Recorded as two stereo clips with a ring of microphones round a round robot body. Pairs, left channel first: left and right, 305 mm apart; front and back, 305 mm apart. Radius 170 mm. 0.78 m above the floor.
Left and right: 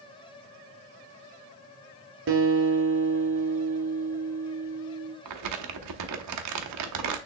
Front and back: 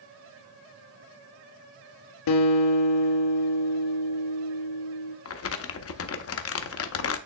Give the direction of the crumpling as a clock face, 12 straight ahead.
2 o'clock.